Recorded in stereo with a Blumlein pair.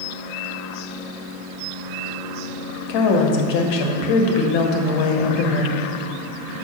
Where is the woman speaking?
45° left, 1.2 m.